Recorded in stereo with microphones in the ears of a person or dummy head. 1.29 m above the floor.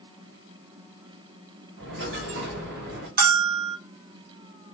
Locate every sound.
1.8 s a dropped coin: 55° right (ahead or behind), 1.1 m
3.2 s a bell: 50° right (ahead or behind), 0.6 m